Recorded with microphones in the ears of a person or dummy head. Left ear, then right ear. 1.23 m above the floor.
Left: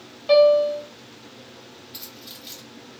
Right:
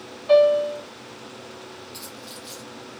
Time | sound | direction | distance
0.3 | a piano | 25° left (ahead or behind) | 1.4 m
1.9 | keys jangling | 10° left (ahead or behind) | 0.7 m